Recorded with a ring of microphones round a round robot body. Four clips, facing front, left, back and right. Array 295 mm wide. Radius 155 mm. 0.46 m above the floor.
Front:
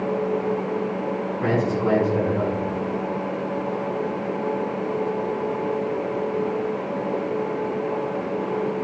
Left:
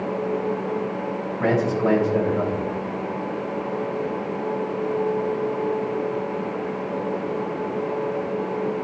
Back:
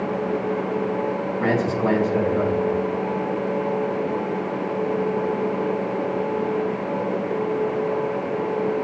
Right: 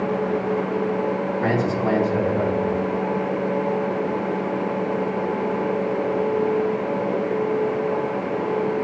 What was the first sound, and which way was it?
A man speaking, 110° left.